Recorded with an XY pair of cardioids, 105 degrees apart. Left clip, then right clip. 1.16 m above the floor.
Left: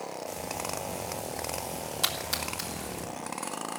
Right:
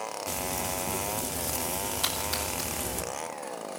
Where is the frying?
70° right, 3 m.